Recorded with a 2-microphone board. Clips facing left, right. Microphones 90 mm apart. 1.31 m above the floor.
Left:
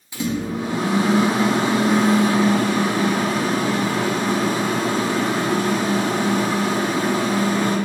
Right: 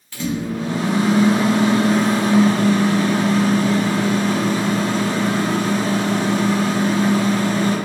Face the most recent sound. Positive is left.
turn(degrees=15)  # may be behind; listen again after turning